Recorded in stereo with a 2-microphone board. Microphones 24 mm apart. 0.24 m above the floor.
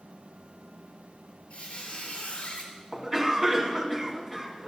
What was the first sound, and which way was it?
A squeak, 40° left (ahead or behind).